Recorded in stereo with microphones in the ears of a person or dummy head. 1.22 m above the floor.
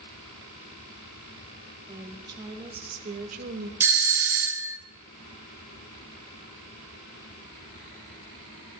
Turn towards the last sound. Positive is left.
turn(degrees=-10)  # may be behind; listen again after turning